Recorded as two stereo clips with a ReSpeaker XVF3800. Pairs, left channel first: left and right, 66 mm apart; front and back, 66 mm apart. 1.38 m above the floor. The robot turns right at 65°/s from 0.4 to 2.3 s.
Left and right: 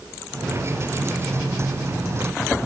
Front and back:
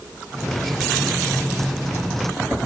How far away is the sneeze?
I don't hear a sneeze.